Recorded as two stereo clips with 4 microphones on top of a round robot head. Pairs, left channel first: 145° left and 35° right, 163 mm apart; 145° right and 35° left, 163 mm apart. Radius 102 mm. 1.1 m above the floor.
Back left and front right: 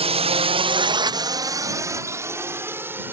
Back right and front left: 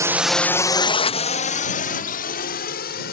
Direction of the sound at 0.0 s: 25° right.